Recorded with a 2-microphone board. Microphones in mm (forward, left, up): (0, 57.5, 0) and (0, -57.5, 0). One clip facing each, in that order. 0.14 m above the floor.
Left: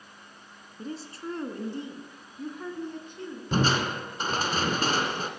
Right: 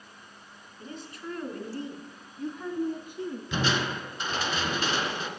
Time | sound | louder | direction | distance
0.8 | a woman speaking | left 4 dB | 40° left (ahead or behind) | 1.6 m
3.5 | crushing | left 4 dB | 45° left (ahead or behind) | 1.4 m